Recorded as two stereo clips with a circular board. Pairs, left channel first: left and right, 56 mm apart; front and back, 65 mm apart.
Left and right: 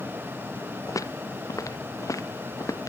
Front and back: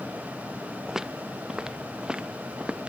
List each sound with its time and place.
0.9 s footsteps: 95° left; by 2.9 s 105° left